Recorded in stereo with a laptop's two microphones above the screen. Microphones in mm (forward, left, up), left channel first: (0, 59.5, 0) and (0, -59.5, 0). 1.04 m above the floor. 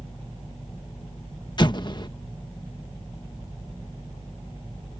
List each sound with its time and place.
1.6 s an explosion: 40° left (ahead or behind)